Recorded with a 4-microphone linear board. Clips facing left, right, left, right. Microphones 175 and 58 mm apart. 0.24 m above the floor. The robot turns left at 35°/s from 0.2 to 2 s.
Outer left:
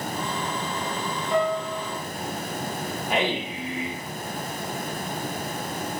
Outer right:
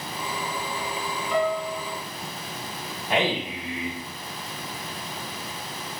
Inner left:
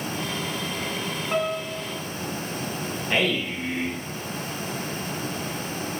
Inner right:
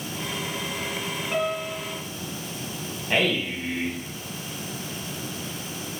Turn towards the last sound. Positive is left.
turn(degrees=10)  # may be behind; listen again after turning